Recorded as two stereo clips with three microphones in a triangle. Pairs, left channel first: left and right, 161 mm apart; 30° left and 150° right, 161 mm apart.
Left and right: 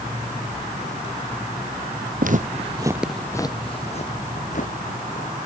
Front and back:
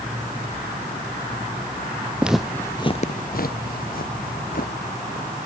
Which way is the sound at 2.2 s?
70° right.